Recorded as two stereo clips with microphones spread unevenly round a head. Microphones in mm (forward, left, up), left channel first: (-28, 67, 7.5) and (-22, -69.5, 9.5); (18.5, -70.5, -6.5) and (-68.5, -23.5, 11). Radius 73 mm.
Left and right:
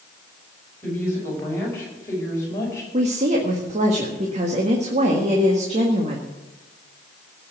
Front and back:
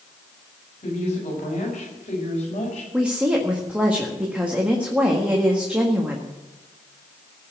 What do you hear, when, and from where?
0.8 s a woman speaking: 15° left, 6 m; by 2.8 s 20° left, 4.5 m
2.9 s a woman speaking: 130° right, 1.7 m